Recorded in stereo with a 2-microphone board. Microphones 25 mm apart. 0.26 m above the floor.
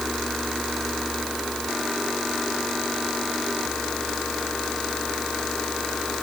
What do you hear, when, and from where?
Only background noise.